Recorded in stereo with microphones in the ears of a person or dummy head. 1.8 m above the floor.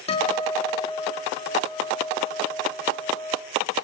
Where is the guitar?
35° left (ahead or behind), 4.5 m.